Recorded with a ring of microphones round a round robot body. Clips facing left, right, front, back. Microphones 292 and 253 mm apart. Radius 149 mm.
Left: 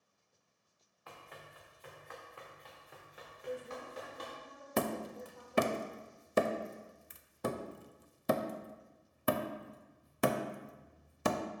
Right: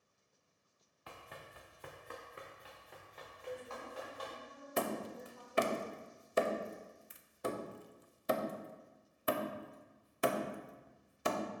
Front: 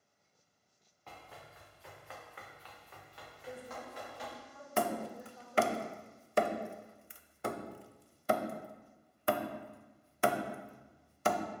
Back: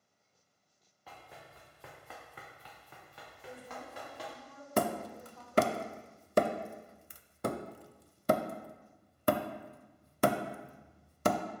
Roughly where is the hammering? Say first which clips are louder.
Left 3 dB, back 2 dB; behind left.